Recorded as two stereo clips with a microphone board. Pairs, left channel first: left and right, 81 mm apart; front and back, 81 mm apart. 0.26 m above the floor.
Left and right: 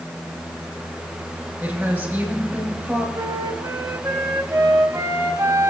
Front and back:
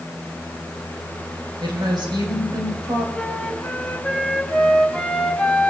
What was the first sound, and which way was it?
A woman speaking, 160° right.